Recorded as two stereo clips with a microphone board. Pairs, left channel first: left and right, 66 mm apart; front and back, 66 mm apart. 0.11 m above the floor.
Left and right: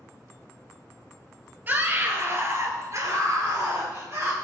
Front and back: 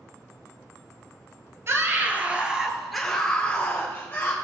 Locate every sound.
1.7 s a scream: 145° right, 1.7 m; by 4.3 s 55° right, 2.5 m